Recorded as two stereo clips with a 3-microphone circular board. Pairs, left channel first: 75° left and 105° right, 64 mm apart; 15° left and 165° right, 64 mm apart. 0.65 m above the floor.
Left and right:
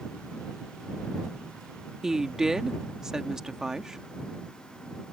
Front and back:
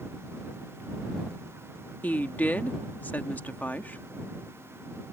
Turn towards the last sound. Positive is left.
turn(degrees=-25)